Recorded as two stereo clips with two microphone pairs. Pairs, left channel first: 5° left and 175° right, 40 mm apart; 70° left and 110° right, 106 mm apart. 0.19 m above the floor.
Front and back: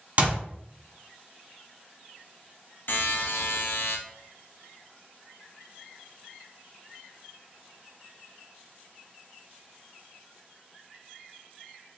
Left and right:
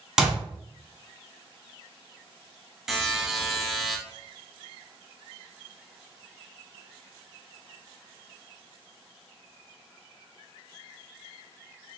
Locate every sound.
0.2 s a clap: 175° left, 1.1 m
2.9 s a buzzer: 20° right, 0.9 m